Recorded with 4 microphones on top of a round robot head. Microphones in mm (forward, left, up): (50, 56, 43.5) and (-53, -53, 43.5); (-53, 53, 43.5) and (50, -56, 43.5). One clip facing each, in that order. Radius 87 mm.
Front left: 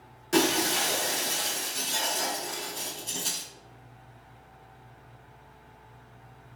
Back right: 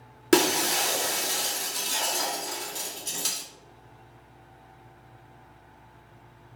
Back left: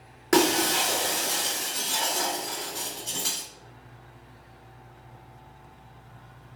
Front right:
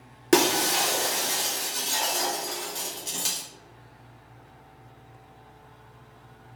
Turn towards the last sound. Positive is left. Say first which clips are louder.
# back right 3 dB, even
turn(degrees=-110)